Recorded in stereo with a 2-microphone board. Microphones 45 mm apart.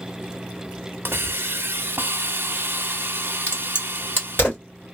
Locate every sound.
1.1 s a hiss: 55° right (ahead or behind), 0.5 m
3.5 s a crack: 45° left (ahead or behind), 2 m